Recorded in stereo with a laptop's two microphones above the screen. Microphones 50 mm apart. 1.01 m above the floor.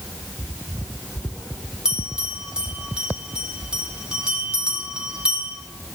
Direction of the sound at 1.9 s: 15° right (ahead or behind).